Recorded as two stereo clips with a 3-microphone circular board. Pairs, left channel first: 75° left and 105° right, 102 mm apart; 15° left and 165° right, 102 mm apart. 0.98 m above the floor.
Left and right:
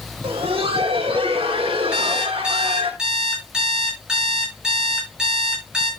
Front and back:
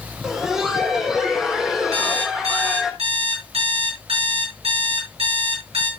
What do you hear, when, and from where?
0.2 s laughter: 80° right, 3.5 m
1.9 s an alarm clock: 175° left, 9 m